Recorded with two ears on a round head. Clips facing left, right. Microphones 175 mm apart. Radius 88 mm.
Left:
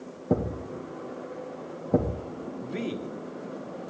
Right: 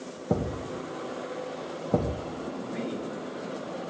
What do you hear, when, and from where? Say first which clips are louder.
0.3 s a thud: left 2 dB; 5° left (ahead or behind), 2.5 m
2.6 s a man speaking: left 3 dB; 40° left (ahead or behind), 1.7 m